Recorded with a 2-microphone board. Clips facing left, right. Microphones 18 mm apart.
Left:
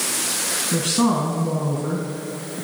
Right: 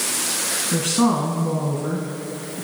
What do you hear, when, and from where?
0.7 s a woman speaking: 5° left (ahead or behind), 1.3 m